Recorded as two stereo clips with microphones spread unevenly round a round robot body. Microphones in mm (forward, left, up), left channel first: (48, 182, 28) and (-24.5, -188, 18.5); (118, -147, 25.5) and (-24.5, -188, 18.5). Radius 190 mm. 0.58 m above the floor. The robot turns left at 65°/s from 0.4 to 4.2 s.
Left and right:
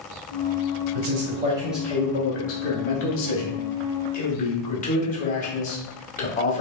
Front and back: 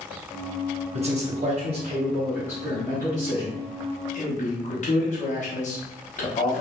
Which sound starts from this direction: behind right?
A man speaking, at 0.9 s.